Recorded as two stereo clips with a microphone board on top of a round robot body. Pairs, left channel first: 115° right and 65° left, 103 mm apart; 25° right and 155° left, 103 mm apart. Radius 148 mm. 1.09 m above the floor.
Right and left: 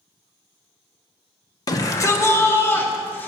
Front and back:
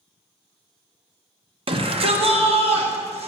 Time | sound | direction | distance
1.7 | a shout | 165° right | 1.0 m